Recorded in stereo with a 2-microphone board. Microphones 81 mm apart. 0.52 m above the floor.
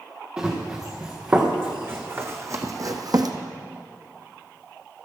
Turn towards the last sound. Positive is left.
turn(degrees=-65)  # may be behind; listen again after turning